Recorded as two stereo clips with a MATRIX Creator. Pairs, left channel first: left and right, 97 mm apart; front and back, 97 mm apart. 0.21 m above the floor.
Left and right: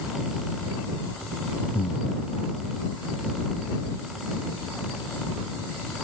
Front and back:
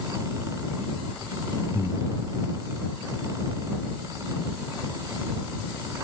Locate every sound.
1.7 s breathing: 80° left